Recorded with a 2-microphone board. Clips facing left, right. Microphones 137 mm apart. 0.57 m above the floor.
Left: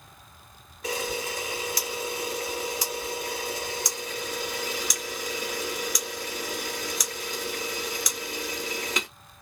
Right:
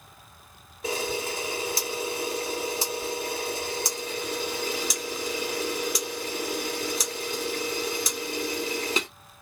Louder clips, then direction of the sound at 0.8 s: Right 1 dB; 25° right (ahead or behind).